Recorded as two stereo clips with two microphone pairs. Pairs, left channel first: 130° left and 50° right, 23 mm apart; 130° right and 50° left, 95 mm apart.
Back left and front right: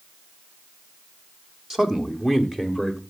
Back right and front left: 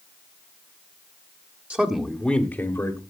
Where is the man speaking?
Straight ahead, 1.3 m; by 3.0 s 130° right, 1.5 m.